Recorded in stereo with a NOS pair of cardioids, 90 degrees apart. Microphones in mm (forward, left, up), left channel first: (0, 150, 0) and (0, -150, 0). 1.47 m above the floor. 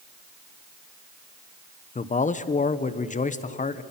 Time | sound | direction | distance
1.9 | a man speaking | 25° left | 1.1 m